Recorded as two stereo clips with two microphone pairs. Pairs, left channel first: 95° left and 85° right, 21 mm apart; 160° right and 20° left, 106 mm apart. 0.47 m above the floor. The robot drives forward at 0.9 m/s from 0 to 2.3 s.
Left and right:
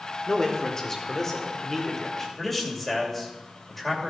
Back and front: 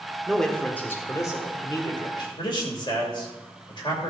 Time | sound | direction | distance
0.3 | a man speaking | 105° left | 1.3 m
2.4 | a man speaking | 175° left | 2 m